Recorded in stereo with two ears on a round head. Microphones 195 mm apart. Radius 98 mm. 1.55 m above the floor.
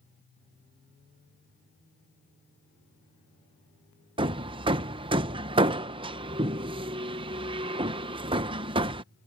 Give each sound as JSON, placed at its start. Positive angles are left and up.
{"t": 4.2, "sound": "hammering", "side_deg": -25}